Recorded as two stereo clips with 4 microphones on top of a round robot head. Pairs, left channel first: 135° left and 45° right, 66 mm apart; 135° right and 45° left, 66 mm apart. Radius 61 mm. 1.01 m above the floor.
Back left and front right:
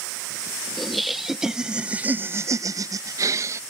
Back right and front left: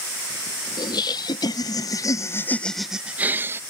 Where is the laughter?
140° right; by 3.6 s 5° right.